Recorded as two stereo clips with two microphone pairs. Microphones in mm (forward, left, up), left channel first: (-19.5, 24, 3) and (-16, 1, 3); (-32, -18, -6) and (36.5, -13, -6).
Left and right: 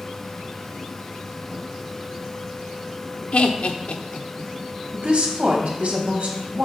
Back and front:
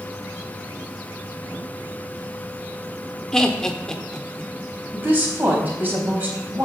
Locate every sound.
3.3 s laughter: 105° left, 1.1 m
4.9 s a woman speaking: 60° right, 3.5 m